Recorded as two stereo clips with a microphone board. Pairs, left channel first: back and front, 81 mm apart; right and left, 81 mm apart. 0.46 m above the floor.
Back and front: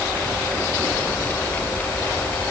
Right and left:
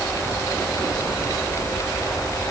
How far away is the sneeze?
I don't hear a sneeze.